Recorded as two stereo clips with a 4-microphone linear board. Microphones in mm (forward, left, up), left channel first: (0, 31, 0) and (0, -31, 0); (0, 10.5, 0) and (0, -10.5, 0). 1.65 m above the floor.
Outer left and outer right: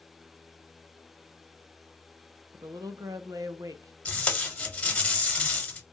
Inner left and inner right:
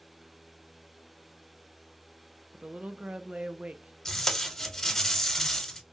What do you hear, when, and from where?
2.5 s a woman speaking: 70° right (ahead or behind), 0.5 m
4.0 s tape being pulled: 20° left (ahead or behind), 0.9 m